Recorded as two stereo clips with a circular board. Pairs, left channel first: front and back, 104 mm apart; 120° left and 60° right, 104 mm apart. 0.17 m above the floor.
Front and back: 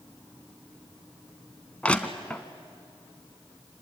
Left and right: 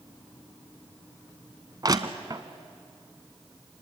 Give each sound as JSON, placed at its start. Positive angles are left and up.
{"t": 1.8, "sound": "crushing", "azimuth_deg": -70, "distance_m": 1.0}